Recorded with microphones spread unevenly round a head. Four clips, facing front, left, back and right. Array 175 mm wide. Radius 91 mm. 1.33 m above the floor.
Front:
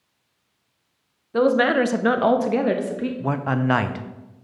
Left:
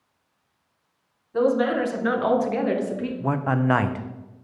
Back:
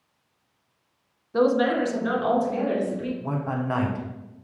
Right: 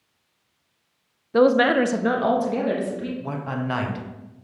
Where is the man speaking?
45° left, 0.7 m.